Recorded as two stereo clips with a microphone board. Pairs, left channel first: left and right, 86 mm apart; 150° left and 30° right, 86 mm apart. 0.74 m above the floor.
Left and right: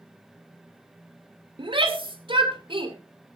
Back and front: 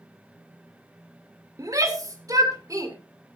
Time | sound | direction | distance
1.6 | a shout | 80° right | 2.0 m